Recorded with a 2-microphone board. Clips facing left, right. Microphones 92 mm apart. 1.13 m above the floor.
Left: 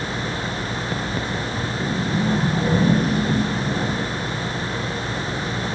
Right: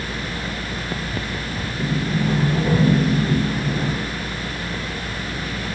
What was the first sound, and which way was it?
A sliding door, centre (ahead or behind).